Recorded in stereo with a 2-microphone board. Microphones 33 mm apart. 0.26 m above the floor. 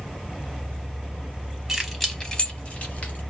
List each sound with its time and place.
1.7 s keys jangling: 10° right (ahead or behind), 0.9 m; by 3.2 s 55° left (ahead or behind), 1.3 m